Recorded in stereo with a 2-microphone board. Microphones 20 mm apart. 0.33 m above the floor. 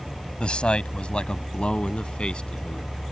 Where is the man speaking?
55° left (ahead or behind); by 2.9 s 50° left (ahead or behind).